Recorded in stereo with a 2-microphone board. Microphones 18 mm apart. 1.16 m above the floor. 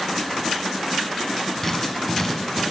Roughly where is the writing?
Centre.